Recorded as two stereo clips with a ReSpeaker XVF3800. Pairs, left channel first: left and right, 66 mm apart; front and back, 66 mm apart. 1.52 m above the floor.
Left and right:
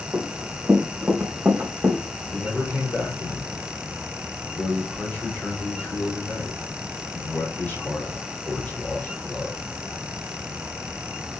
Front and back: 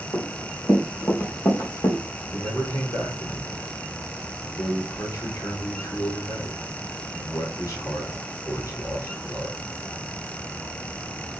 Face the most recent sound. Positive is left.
turn(degrees=25)